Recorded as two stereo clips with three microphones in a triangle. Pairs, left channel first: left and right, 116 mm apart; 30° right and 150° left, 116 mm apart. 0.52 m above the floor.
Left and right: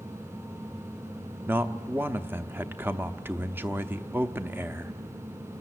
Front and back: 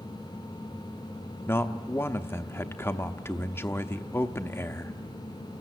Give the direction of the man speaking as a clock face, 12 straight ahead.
2 o'clock.